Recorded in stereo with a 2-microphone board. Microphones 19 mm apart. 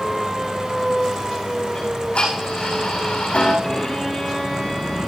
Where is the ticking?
75° left (ahead or behind), 8 m.